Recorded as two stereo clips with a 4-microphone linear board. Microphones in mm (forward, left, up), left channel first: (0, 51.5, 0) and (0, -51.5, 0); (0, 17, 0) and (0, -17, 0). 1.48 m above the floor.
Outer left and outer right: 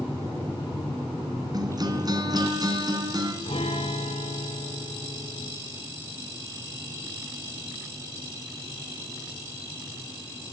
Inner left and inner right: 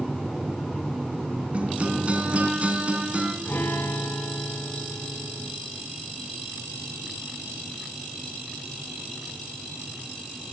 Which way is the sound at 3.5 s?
70° left (ahead or behind).